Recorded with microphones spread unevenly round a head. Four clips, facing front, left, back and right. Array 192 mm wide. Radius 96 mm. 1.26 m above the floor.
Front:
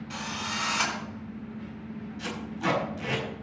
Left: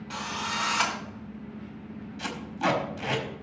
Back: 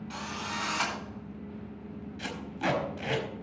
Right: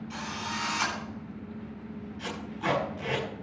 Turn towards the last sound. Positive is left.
turn(degrees=115)